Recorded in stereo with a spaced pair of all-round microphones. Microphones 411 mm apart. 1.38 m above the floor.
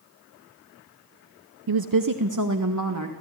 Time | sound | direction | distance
1.7 | a woman speaking | 65° right (ahead or behind) | 0.6 m